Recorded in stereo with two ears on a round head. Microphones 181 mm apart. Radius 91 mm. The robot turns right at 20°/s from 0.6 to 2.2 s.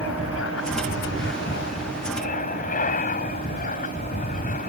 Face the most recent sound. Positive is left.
turn(degrees=135)